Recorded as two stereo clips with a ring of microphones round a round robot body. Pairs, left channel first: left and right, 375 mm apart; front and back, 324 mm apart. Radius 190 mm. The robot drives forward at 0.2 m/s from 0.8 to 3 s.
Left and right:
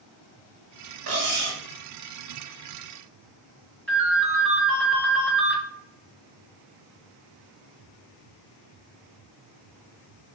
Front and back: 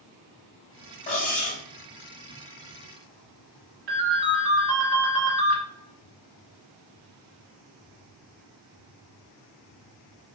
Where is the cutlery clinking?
55° right, 0.9 m; by 1.6 s 65° right, 0.9 m.